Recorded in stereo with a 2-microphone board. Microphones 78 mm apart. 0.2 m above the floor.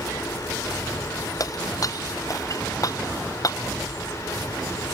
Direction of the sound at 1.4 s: 50° left (ahead or behind).